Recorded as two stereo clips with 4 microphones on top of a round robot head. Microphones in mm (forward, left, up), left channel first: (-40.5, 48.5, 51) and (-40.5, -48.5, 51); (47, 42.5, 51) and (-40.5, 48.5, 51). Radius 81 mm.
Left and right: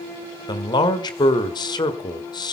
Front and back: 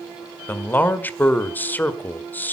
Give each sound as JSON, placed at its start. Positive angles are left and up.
{"t": 0.5, "sound": "a man speaking", "azimuth_deg": 60, "distance_m": 1.7}